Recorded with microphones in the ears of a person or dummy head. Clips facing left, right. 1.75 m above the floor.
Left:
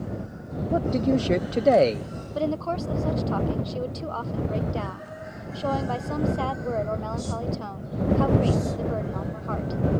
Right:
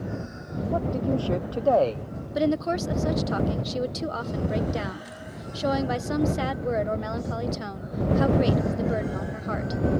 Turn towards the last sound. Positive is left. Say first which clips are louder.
# right 3 dB
turn(degrees=-20)  # may be behind; listen again after turning